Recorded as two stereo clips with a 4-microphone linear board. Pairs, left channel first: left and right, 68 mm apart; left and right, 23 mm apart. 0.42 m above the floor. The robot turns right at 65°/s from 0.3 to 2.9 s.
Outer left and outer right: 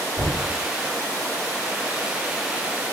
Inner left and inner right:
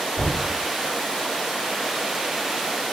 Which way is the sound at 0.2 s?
40° right (ahead or behind).